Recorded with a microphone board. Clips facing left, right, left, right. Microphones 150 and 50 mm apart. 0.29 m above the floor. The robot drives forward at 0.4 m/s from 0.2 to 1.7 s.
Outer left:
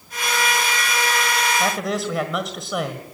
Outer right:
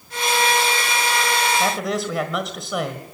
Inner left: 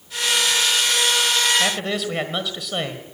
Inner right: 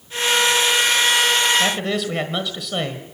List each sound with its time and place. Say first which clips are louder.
1.6 s a man speaking: outer right 1 dB, inner right 2 dB; centre (ahead or behind), 1.6 m